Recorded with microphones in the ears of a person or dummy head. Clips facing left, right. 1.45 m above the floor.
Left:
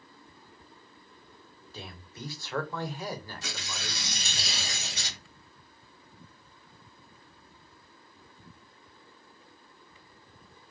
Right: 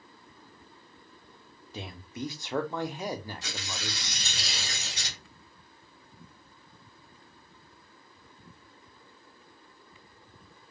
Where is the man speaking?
10° right (ahead or behind), 0.6 m.